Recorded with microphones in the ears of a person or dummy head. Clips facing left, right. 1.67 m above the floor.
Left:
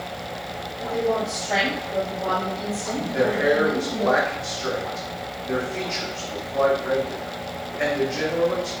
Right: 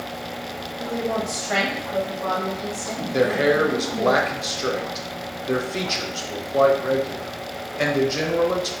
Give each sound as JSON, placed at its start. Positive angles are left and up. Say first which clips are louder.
{"t": 0.8, "sound": "a woman speaking", "louder": "left 2 dB", "side_deg": -20, "distance_m": 1.2}
{"t": 3.1, "sound": "a man speaking", "louder": "right 2 dB", "side_deg": -55, "distance_m": 0.6}